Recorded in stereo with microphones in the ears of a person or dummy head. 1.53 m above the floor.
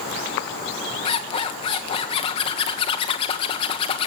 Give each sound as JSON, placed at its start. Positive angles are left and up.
{"t": 1.1, "sound": "a zipper", "side_deg": 35, "distance_m": 1.5}